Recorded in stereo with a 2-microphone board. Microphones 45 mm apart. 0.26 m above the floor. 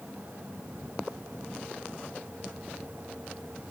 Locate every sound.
Only background noise.